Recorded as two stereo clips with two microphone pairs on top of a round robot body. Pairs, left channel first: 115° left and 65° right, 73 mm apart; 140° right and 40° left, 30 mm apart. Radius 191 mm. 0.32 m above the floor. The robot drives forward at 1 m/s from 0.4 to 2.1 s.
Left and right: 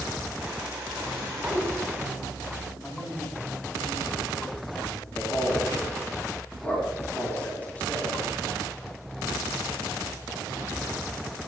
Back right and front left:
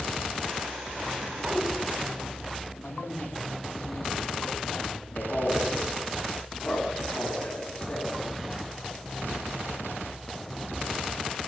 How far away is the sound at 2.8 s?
About 3.5 m.